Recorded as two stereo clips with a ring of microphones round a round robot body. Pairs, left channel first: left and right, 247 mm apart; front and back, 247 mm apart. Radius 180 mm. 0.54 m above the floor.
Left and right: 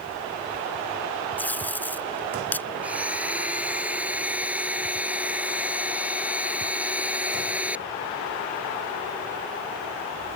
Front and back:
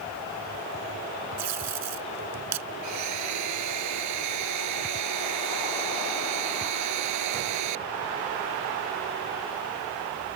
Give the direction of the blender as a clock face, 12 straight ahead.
6 o'clock.